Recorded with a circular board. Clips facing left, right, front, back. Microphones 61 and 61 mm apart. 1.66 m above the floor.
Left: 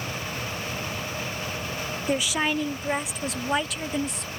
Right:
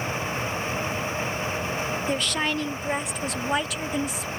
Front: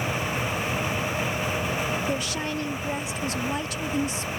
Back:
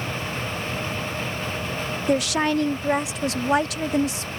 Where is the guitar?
I don't hear a guitar.